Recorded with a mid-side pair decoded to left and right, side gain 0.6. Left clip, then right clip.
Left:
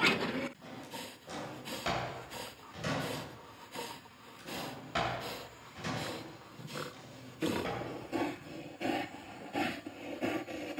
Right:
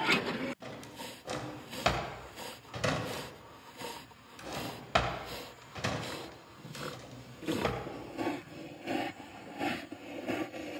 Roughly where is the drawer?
Ahead right.